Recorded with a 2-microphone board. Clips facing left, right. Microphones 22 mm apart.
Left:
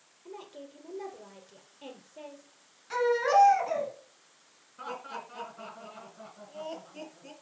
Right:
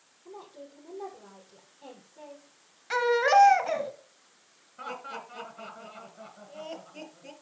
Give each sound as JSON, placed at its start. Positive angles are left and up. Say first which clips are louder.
{"t": 0.2, "sound": "a woman speaking", "louder": "left 1 dB", "side_deg": 50, "distance_m": 3.5}
{"t": 2.9, "sound": "a baby crying", "louder": "right 2 dB", "side_deg": -30, "distance_m": 1.3}
{"t": 4.8, "sound": "laughter", "louder": "right 1 dB", "side_deg": -5, "distance_m": 2.0}